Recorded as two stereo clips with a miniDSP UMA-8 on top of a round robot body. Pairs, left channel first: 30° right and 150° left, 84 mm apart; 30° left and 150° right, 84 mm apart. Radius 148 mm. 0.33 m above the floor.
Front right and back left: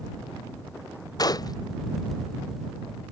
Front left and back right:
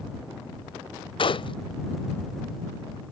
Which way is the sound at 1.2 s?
10° left.